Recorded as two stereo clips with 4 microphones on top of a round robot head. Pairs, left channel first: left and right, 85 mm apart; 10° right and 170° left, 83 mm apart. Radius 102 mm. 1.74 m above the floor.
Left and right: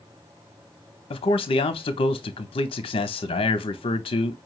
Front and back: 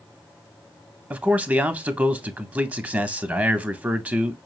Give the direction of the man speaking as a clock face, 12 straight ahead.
9 o'clock.